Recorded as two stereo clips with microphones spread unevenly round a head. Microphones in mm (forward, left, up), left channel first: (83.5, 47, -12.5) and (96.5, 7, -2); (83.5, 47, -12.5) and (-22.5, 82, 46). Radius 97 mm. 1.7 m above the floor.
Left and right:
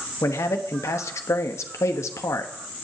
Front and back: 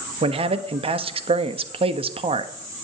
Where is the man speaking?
125° left, 1.0 m.